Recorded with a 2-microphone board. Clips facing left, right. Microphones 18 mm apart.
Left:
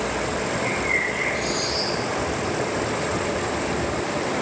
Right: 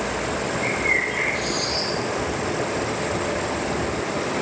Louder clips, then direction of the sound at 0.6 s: Right 2 dB; 10° right (ahead or behind).